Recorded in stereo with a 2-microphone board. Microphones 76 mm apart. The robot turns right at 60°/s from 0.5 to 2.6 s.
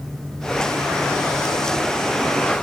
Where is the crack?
I don't hear a crack.